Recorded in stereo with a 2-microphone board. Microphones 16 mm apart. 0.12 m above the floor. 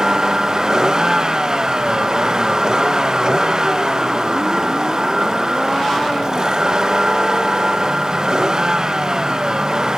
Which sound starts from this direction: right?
A vehicle, at 0.0 s.